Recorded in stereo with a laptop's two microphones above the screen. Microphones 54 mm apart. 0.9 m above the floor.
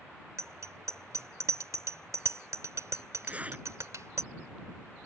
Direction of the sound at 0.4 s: 70° right (ahead or behind).